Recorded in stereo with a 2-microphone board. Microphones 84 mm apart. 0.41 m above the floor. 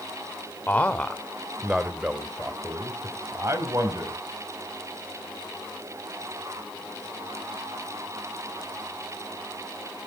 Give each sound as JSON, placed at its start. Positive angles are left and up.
{"t": 0.7, "sound": "a man speaking", "side_deg": 20, "distance_m": 1.0}